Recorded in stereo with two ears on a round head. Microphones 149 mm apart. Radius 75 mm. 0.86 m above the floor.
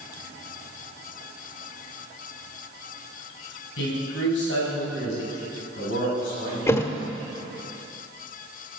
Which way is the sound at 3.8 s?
80° left.